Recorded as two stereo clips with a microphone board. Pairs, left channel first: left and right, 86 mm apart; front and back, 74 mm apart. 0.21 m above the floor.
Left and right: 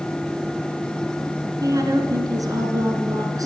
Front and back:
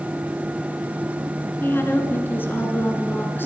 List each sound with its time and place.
1.6 s a woman speaking: 55° right, 2.5 m